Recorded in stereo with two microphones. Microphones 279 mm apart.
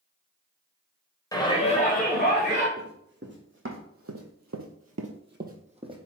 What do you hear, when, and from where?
1.3 s a shout: 15° left (ahead or behind), 1.1 m; by 2.7 s 40° left (ahead or behind), 1.4 m
2.8 s running footsteps: 35° right (ahead or behind), 1.8 m; by 6.0 s 15° right (ahead or behind), 1.0 m